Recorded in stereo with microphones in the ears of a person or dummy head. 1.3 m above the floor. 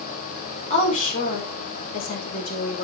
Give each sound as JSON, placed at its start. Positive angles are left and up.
{"t": 0.7, "sound": "a woman speaking", "side_deg": 35, "distance_m": 5.0}